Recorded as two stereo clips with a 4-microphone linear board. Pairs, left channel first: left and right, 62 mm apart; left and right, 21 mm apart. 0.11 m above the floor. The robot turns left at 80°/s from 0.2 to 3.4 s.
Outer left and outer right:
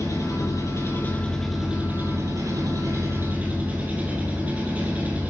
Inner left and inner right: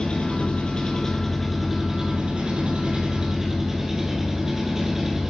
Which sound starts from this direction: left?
An engine running, at 0.0 s.